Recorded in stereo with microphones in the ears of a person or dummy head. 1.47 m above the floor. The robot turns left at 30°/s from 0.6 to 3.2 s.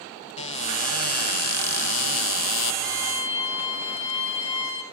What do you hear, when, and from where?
0.4 s a cupboard door: 145° left, 0.8 m; by 2.7 s 80° left, 0.8 m
2.8 s a violin: 5° left (ahead or behind), 3 m; by 4.8 s 15° left (ahead or behind), 3 m